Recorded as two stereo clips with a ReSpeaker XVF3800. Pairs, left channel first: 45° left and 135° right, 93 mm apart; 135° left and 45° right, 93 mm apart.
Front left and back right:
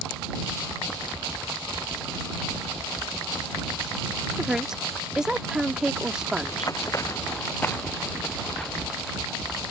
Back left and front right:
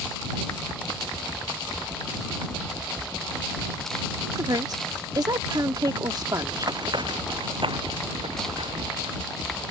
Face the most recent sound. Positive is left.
turn(degrees=-40)